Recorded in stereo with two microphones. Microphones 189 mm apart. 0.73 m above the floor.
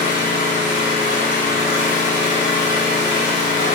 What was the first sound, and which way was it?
An engine running, 70° left (ahead or behind).